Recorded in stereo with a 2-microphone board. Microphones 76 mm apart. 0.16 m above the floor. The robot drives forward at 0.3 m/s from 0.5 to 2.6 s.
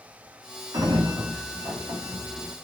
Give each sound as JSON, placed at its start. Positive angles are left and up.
{"t": 0.7, "sound": "a sliding door", "side_deg": -45, "distance_m": 4.0}